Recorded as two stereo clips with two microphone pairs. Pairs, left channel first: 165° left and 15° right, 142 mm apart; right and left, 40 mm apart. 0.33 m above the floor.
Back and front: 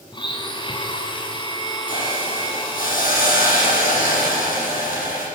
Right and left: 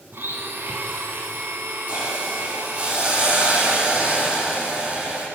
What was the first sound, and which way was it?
A blender, 110° left.